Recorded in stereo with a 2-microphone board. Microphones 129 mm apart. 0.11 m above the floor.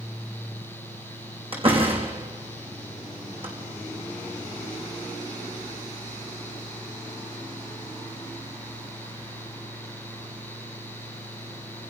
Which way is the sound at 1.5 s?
45° right (ahead or behind).